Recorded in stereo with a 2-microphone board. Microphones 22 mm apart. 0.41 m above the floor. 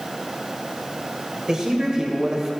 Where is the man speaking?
35° right (ahead or behind), 1.8 m.